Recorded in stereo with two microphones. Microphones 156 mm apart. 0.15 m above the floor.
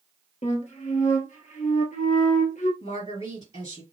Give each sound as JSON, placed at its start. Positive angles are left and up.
{"t": 0.4, "sound": "a flute", "side_deg": 55, "distance_m": 1.2}
{"t": 2.8, "sound": "a woman speaking", "side_deg": 50, "distance_m": 2.0}